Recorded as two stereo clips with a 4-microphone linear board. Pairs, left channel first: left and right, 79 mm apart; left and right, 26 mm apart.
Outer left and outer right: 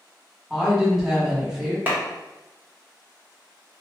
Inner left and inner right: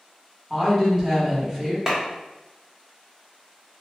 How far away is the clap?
About 0.8 m.